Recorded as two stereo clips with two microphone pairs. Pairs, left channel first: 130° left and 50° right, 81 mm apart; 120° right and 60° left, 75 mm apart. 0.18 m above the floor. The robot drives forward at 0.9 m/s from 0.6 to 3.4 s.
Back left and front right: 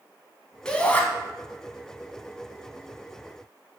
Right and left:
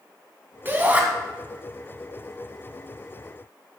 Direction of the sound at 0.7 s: 65° left.